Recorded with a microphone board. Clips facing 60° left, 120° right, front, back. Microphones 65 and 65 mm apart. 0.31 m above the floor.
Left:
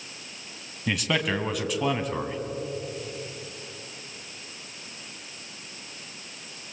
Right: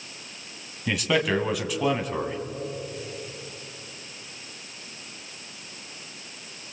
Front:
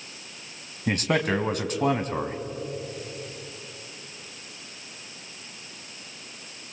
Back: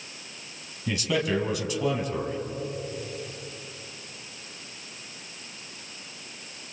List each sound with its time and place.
0.9 s a man speaking: 30° right, 2 m